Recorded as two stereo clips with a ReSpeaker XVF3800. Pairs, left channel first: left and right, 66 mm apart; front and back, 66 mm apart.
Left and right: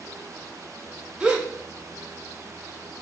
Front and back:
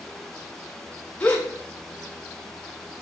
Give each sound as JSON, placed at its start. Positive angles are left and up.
{"t": 1.2, "sound": "a gasp", "azimuth_deg": -40, "distance_m": 0.6}